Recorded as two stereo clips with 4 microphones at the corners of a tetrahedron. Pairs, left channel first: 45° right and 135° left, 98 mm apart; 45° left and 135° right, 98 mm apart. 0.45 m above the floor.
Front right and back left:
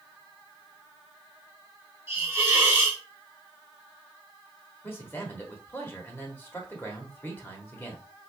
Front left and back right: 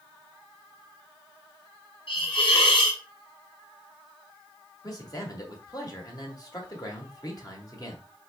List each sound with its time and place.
2.1 s a hiss: 70° left, 1.6 m
4.8 s a man speaking: 15° left, 1.2 m